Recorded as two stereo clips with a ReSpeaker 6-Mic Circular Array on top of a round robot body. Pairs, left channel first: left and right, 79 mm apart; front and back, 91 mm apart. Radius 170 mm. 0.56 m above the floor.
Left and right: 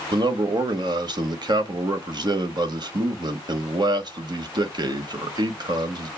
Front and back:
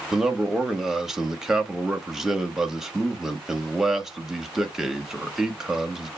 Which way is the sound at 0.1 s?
95° right.